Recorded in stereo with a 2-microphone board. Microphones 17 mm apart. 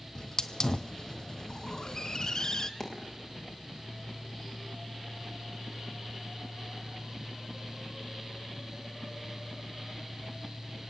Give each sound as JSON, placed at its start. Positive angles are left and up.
{"t": 0.1, "sound": "a hiss", "side_deg": 40, "distance_m": 1.2}
{"t": 2.8, "sound": "a dropped coin", "side_deg": 15, "distance_m": 9.0}